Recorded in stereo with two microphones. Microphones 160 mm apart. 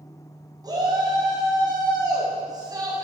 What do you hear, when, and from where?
0.6 s a shout: 25° right (ahead or behind), 4 m